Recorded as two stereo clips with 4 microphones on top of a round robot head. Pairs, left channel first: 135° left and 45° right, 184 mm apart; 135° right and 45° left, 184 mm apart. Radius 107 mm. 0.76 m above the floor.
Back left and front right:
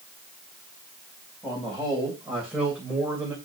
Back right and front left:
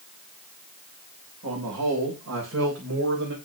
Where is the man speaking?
45° left, 4 m; by 3.4 s 30° left, 3 m.